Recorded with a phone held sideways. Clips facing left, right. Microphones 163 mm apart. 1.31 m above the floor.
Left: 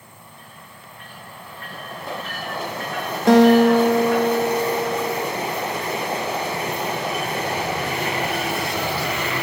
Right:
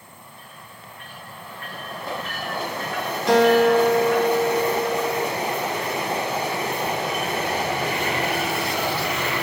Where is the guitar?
50° left (ahead or behind), 1.7 m.